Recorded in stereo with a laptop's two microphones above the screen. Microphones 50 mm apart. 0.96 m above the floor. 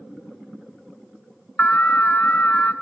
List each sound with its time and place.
1.6 s an alarm: 35° left (ahead or behind), 0.8 m